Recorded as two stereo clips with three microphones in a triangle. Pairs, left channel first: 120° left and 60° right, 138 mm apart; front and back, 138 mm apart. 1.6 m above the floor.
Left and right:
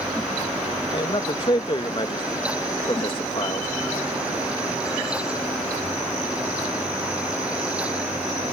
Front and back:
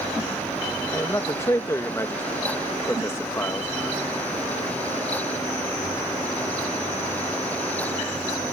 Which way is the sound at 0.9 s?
70° left.